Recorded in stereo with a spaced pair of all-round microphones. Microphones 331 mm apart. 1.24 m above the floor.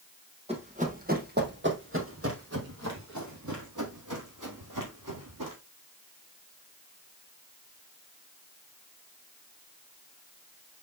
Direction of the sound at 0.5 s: 20° right (ahead or behind).